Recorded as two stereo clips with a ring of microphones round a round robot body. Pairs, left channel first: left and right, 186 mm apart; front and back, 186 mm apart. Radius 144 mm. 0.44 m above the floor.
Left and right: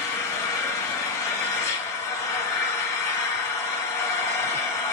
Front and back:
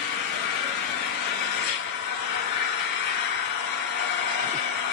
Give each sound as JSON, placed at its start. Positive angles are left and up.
{"t": 0.0, "sound": "an engine running", "azimuth_deg": 20, "distance_m": 2.5}